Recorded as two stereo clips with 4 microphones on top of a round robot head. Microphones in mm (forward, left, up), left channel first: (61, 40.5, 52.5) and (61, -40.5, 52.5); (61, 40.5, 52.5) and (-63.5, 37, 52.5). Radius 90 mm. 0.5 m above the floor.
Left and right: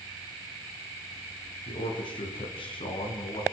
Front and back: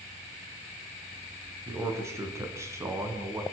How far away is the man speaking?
About 5.5 m.